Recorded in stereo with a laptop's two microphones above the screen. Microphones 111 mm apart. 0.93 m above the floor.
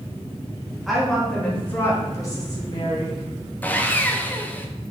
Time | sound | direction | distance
0.9 | a woman speaking | centre (ahead or behind) | 1.8 m
3.6 | sawing | 15° left (ahead or behind) | 0.6 m